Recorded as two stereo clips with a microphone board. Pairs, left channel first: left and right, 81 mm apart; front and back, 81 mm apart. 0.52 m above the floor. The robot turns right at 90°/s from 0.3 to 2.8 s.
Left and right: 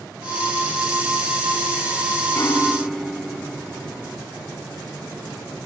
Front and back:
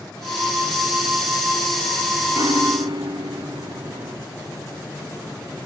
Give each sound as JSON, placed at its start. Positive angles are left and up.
{"t": 2.3, "sound": "a piano", "azimuth_deg": 140}